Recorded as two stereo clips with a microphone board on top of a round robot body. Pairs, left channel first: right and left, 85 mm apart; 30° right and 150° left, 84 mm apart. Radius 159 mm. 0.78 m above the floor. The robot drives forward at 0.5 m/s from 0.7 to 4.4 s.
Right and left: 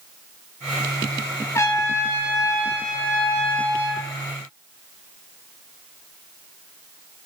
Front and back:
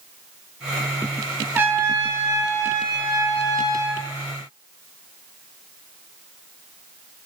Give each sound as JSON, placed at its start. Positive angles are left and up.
{"t": 1.6, "sound": "a trumpet", "azimuth_deg": -145, "distance_m": 1.6}